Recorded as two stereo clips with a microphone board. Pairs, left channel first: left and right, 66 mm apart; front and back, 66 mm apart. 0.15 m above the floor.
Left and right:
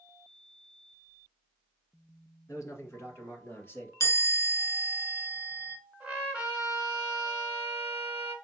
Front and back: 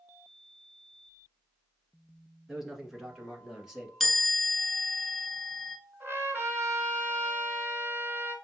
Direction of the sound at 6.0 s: 160° right.